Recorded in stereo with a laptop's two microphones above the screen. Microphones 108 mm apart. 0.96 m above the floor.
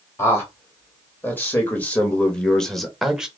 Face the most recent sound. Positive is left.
turn(degrees=-5)  # may be behind; listen again after turning